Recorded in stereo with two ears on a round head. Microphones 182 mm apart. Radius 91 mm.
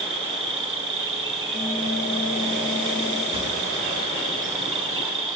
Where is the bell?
15° left (ahead or behind), 3 m.